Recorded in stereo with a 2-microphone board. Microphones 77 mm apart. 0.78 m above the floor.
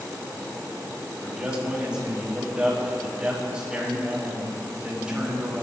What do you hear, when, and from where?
1.2 s a man speaking: 10° right (ahead or behind), 6 m